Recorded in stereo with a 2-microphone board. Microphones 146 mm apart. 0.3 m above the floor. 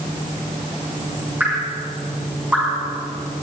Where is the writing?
I don't hear writing.